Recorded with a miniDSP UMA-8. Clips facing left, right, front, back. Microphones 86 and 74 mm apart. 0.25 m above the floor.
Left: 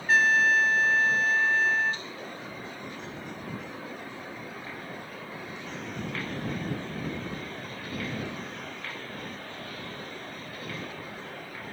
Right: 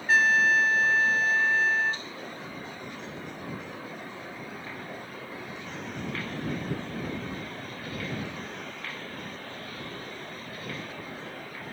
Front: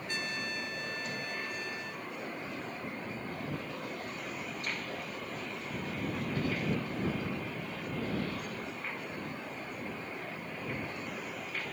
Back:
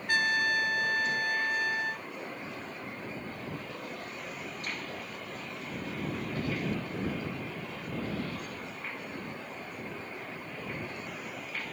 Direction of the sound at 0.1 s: Straight behind.